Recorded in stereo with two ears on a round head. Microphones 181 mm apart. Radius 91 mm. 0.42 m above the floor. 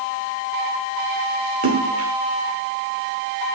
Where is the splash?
80° right, 4 m.